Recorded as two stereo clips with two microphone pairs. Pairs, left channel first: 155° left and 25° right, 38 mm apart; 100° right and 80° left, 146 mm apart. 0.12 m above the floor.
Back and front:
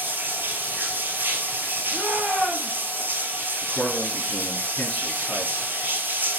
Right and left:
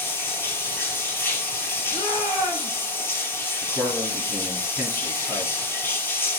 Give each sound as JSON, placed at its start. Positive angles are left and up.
{"t": 0.0, "sound": "running water", "azimuth_deg": -30, "distance_m": 0.7}
{"t": 1.9, "sound": "a shout", "azimuth_deg": -50, "distance_m": 2.0}
{"t": 3.6, "sound": "a man speaking", "azimuth_deg": 175, "distance_m": 1.7}